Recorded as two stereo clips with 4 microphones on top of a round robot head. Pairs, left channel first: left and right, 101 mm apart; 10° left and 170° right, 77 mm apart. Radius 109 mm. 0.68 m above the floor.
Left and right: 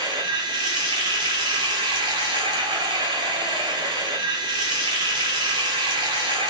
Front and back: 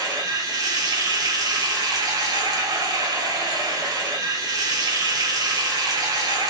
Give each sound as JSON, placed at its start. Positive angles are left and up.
{"t": 0.0, "sound": "running water", "azimuth_deg": -135, "distance_m": 0.8}